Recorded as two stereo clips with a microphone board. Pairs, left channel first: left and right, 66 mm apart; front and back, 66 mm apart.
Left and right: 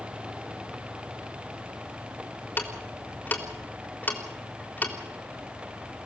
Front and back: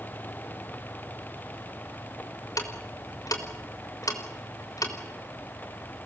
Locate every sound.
2.6 s ticking: 25° left, 4 m